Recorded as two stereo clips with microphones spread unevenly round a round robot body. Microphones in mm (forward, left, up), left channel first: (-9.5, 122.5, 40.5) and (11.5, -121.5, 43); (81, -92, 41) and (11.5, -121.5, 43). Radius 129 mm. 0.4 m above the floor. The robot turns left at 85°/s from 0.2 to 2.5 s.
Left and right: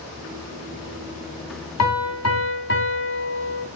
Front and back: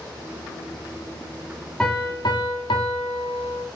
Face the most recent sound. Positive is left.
turn(degrees=50)